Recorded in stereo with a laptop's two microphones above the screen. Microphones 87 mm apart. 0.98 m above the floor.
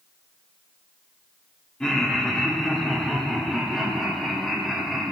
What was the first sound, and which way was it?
Laughter, 10° left (ahead or behind).